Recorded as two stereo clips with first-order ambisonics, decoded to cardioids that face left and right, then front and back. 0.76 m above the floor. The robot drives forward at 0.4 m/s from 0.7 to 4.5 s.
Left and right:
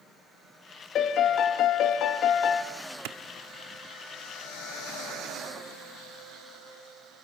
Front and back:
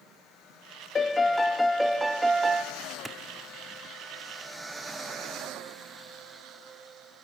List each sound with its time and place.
0.9 s a piano: 60° left, 1.2 m; by 2.6 s 110° left, 1.2 m
3.0 s a clap: 95° right, 1.1 m; by 3.2 s 100° right, 1.1 m